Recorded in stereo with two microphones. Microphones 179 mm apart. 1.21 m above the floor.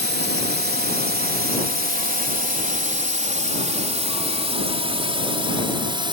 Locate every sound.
0.0 s a drone: 65° right (ahead or behind); by 6.1 s 25° right (ahead or behind)